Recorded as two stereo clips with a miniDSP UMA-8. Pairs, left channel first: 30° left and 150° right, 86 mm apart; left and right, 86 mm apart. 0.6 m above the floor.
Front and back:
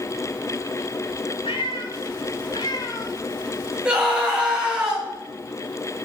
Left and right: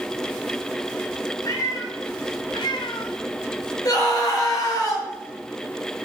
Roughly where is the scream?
Behind left.